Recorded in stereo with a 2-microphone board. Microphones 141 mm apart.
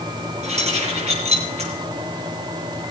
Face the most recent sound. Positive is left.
turn(degrees=-50)  # may be behind; listen again after turning